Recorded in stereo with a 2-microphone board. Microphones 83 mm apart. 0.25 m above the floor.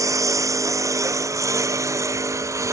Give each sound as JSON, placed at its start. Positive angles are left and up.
{"t": 0.0, "sound": "a lawn mower", "side_deg": -45}